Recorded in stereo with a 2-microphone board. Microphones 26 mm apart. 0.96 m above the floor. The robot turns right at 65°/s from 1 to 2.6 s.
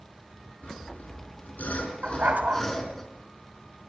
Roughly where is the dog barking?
Right.